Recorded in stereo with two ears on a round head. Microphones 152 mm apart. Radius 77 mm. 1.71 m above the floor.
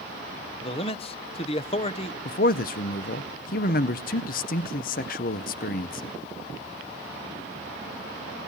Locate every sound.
0.6 s a man speaking: 35° left (ahead or behind), 0.8 m
2.2 s a man speaking: 50° left (ahead or behind), 0.7 m